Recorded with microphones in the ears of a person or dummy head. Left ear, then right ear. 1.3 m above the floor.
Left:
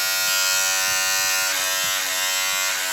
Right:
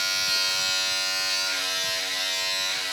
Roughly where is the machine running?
Left.